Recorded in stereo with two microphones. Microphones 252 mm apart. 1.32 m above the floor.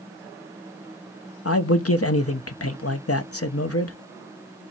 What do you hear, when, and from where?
1.4 s a man speaking: 70° left (ahead or behind), 0.9 m